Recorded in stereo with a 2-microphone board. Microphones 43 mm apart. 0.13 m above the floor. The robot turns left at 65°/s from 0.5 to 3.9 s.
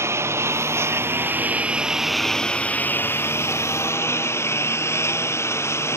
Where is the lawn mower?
85° right; by 6.0 s 85° left.